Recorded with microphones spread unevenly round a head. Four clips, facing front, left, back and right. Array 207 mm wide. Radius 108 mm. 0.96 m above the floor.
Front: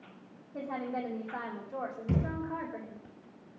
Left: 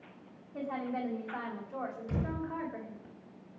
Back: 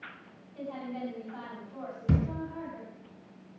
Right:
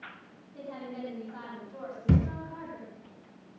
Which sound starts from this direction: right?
A thud, at 2.1 s.